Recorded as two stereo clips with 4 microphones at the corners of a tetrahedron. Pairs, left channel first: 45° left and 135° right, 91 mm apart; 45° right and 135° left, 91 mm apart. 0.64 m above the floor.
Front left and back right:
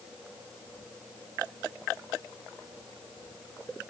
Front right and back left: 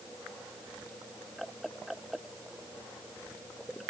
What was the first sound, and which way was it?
Only background noise.